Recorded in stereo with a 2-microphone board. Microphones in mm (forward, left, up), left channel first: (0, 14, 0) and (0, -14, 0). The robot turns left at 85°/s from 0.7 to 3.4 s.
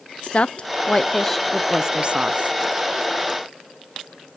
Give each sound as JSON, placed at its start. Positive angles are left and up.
{"t": 0.2, "sound": "a woman speaking", "side_deg": 45, "distance_m": 0.6}